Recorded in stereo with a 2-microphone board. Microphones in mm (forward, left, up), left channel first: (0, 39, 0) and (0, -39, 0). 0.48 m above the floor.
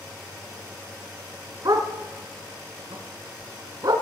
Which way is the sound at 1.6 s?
60° right (ahead or behind).